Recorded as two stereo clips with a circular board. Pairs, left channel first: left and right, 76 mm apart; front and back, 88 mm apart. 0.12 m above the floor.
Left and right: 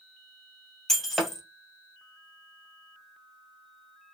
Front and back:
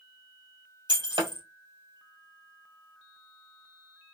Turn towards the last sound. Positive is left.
turn(degrees=175)